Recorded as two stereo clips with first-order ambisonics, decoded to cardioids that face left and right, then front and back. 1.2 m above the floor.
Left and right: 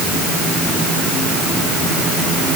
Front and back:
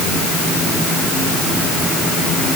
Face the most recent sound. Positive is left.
No sound to turn to.